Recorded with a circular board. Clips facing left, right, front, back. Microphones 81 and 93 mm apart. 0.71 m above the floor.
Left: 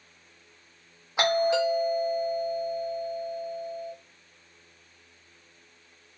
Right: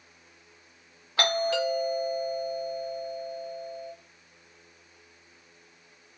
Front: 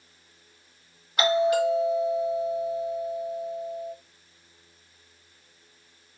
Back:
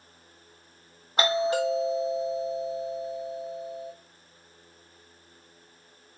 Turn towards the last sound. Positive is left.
turn(degrees=150)